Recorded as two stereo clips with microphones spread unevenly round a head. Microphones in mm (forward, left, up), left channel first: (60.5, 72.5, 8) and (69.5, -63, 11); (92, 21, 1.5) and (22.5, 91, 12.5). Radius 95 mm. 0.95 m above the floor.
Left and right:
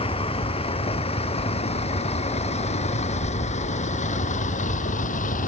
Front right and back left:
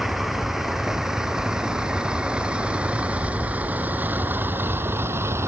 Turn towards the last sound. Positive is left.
turn(degrees=75)